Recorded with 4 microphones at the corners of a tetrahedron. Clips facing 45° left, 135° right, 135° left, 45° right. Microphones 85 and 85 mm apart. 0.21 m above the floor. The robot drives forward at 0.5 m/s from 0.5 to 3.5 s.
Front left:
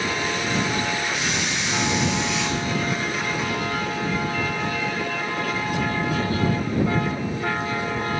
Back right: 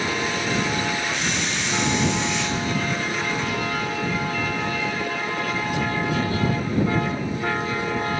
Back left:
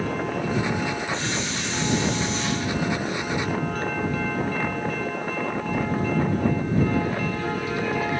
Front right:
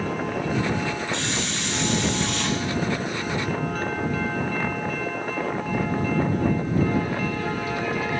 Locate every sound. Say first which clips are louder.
1.1 s a hiss: even, even; 40° right, 6.5 m; by 2.6 s 45° right, 6 m